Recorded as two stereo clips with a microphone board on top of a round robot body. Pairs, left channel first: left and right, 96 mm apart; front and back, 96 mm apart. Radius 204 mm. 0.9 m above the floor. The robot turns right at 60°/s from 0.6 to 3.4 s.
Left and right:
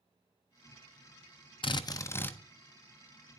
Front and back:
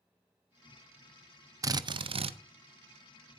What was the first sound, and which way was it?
A drill, 125° left.